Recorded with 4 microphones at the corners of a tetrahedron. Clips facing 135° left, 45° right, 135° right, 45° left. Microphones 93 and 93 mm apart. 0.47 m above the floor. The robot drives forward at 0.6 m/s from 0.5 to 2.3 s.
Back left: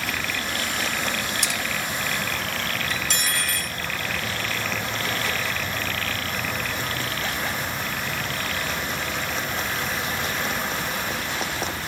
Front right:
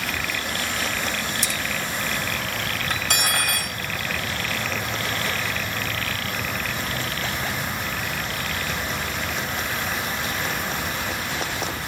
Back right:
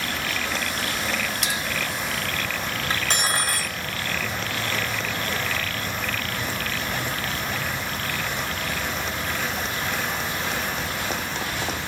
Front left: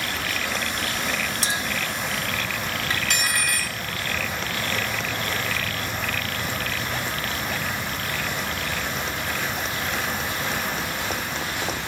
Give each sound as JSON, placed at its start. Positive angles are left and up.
{"t": 1.4, "sound": "a clink", "azimuth_deg": 100, "distance_m": 0.9}
{"t": 2.9, "sound": "cutlery clinking", "azimuth_deg": -80, "distance_m": 1.6}